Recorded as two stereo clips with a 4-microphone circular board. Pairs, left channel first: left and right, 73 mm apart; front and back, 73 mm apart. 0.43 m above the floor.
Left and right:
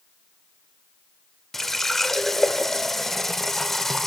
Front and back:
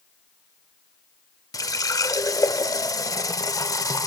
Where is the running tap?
5° left, 0.7 m.